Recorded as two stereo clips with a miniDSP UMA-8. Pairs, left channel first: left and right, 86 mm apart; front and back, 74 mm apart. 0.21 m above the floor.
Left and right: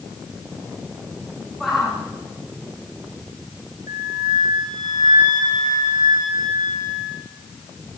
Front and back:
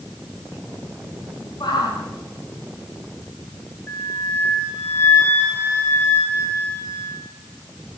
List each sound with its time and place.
1.6 s a shout: straight ahead, 9 m
3.9 s a flute: 60° right, 5.5 m